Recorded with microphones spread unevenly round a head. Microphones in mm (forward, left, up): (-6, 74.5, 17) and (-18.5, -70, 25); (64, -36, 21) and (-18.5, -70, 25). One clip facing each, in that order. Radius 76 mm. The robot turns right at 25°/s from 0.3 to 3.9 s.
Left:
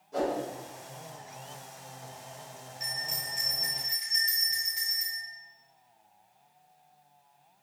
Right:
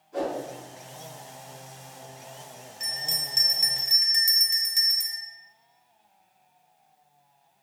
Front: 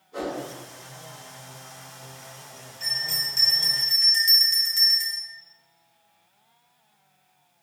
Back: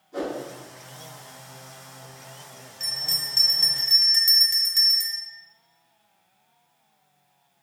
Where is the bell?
150° right, 0.9 m; by 5.2 s 125° right, 0.9 m.